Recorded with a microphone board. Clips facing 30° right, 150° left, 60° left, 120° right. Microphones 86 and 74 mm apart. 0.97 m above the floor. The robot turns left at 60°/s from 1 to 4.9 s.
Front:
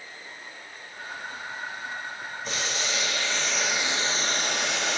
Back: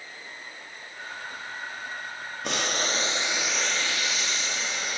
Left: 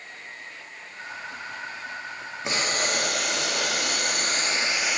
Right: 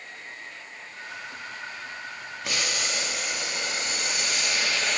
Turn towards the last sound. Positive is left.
turn(degrees=-20)